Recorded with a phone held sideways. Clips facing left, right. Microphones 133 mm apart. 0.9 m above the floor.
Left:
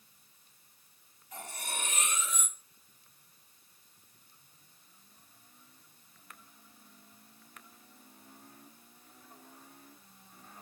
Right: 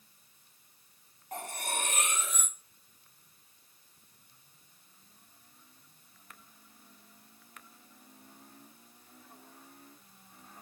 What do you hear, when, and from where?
1.3 s cutlery clinking: 55° right (ahead or behind), 1.0 m